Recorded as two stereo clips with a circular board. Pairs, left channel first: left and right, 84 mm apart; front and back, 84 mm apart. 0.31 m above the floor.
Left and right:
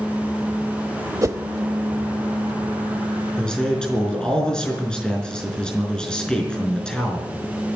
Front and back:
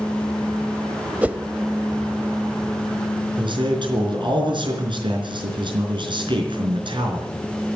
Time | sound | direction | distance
1.2 | a whoosh | 115° right | 0.7 m
3.4 | a man speaking | 170° left | 4.5 m